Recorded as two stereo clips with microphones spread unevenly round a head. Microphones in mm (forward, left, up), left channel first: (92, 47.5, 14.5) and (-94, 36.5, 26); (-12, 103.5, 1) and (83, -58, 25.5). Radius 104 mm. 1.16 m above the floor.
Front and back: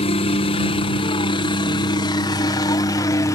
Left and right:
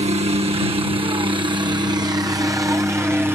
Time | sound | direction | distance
0.0 | a helicopter | 20° right | ?